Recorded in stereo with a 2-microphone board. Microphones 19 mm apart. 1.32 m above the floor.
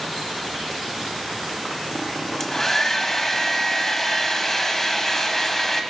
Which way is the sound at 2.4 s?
25° left (ahead or behind).